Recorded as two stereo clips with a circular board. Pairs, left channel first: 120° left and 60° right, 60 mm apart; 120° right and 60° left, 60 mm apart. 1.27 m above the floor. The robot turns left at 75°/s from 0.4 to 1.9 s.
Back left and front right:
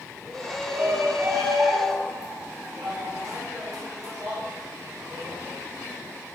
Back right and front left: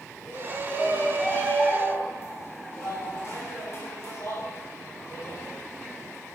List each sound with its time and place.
0.2 s a shout: 35° left, 7.5 m; by 5.4 s 75° right, 7.5 m